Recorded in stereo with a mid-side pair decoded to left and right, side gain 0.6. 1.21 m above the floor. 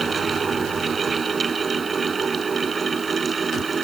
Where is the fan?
25° right.